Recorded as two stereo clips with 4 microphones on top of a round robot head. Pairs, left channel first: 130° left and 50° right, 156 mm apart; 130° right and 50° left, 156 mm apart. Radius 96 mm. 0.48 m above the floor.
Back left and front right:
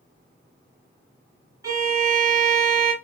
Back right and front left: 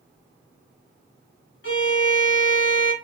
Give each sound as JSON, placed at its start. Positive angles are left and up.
{"t": 1.6, "sound": "a violin", "azimuth_deg": -120, "distance_m": 2.0}